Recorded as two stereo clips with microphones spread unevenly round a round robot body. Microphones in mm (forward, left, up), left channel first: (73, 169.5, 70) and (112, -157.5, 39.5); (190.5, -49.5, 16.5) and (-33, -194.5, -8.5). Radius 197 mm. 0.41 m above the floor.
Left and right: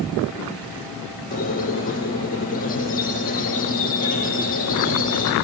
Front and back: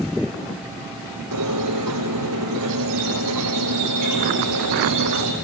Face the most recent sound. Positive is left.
turn(degrees=165)